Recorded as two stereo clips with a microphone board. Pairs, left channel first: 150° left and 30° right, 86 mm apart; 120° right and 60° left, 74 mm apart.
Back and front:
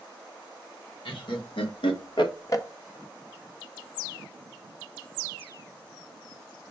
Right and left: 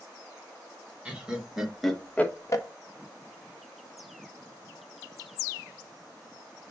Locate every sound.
1.1 s laughter: 135° left, 1.4 m; by 2.6 s 155° right, 0.6 m